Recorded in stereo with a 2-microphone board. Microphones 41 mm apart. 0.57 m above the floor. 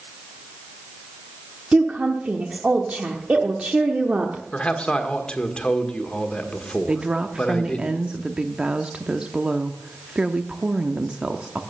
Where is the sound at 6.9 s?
25° right (ahead or behind), 0.7 m.